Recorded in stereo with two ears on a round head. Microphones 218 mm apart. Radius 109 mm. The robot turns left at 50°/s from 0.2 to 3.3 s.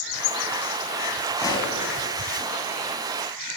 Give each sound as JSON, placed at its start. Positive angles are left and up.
{"t": 1.4, "sound": "a pop", "side_deg": 15, "distance_m": 4.5}